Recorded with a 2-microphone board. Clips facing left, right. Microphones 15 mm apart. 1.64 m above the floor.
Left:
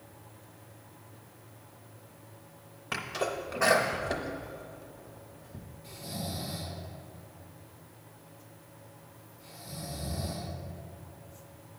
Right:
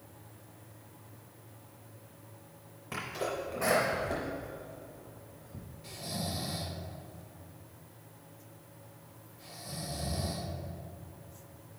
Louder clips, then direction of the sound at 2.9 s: Left 3 dB; 45° left (ahead or behind).